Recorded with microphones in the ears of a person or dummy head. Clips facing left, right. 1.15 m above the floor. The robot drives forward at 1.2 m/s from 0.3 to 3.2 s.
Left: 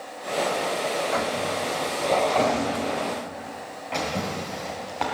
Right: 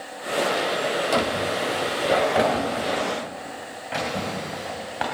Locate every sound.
1.1 s a drawer: 35° right (ahead or behind), 0.7 m; by 5.0 s 10° right (ahead or behind), 2.5 m